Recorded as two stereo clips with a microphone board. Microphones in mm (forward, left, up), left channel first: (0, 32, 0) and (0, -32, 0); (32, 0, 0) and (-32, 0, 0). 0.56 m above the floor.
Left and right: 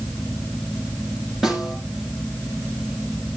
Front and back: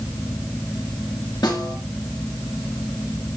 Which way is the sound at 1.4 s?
5° right.